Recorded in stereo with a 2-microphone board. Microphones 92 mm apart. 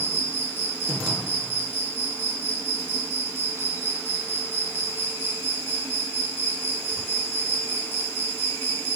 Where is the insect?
25° right (ahead or behind), 1.0 m.